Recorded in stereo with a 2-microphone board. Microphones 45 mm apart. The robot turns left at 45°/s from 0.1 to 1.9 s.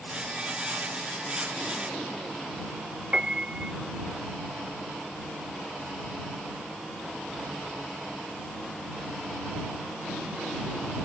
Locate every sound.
3.1 s a piano: 20° right (ahead or behind)